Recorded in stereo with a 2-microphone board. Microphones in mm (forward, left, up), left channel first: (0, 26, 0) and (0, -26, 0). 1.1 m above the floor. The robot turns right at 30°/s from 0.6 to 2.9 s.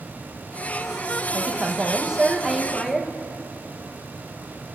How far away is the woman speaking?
About 1.0 m.